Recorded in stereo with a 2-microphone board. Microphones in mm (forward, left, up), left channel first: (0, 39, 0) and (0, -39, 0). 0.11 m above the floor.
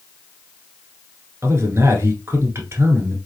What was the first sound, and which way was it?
A man speaking, 35° right (ahead or behind).